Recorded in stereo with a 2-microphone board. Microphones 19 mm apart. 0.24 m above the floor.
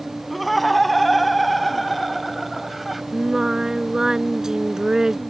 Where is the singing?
30° right (ahead or behind).